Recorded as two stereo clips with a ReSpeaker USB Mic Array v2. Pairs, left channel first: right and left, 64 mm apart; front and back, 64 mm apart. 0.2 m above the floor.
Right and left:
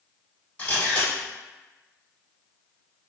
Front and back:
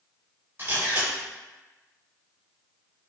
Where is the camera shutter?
150° right, 1.4 m.